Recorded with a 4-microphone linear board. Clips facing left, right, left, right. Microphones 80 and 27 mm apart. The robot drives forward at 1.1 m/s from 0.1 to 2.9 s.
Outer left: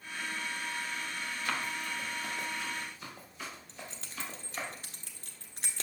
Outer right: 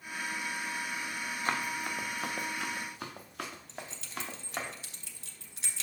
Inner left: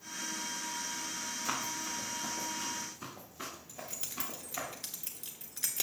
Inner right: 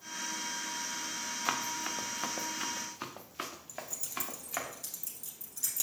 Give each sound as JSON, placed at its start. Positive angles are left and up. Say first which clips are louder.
{"t": 1.4, "sound": "running footsteps", "louder": "outer right 3 dB, inner right 3 dB", "side_deg": -35, "distance_m": 1.4}
{"t": 3.7, "sound": "keys jangling", "louder": "outer right 3 dB, inner right 2 dB", "side_deg": 45, "distance_m": 1.4}